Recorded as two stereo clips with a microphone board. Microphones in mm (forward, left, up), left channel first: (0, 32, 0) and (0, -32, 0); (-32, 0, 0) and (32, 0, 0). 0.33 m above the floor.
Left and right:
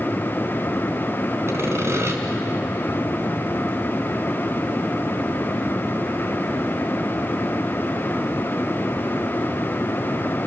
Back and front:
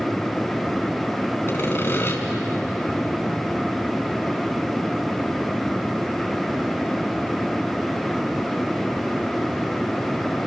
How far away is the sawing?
About 3 m.